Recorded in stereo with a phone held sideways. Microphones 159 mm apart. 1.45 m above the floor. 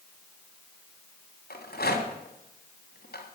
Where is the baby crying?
No baby crying in this recording.